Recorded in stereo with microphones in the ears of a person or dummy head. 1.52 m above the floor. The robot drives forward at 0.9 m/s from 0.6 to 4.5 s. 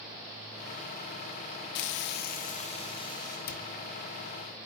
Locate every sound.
1.8 s frying: 60° left (ahead or behind), 0.6 m; by 3.4 s 20° left (ahead or behind), 1.5 m
3.5 s a cupboard door: 50° left (ahead or behind), 0.8 m; by 3.7 s 45° left (ahead or behind), 0.8 m